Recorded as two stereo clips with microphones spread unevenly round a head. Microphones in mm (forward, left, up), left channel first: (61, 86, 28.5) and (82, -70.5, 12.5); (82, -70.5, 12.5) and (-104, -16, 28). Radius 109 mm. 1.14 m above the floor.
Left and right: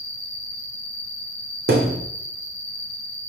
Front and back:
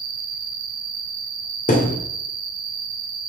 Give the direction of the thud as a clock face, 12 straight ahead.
2 o'clock.